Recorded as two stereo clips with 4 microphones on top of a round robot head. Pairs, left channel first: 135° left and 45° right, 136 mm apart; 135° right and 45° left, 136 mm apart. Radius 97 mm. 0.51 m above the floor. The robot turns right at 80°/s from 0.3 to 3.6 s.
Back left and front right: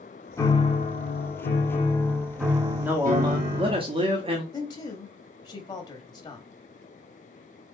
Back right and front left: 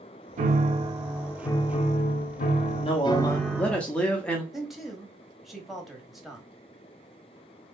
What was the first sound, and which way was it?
A piano, 65° left.